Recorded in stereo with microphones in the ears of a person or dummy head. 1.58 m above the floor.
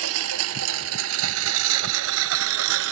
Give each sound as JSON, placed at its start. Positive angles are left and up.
{"t": 0.0, "sound": "a lawn mower", "side_deg": -80}